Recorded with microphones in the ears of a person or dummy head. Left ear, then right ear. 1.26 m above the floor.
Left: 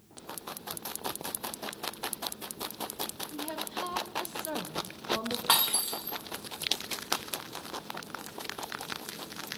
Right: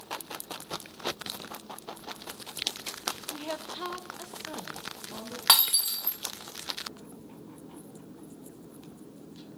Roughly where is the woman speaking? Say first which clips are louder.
Even; right.